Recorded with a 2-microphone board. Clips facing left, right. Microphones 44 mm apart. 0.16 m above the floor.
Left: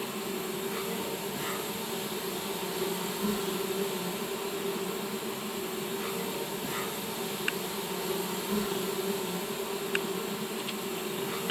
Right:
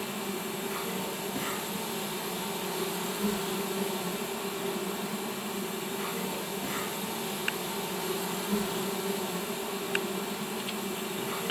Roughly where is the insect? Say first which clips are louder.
Even; right.